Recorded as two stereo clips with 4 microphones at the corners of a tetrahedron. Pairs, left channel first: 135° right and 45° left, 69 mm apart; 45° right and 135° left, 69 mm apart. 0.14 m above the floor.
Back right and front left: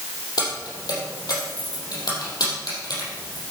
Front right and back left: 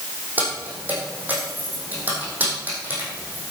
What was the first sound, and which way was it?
Keys jangling, 160° right.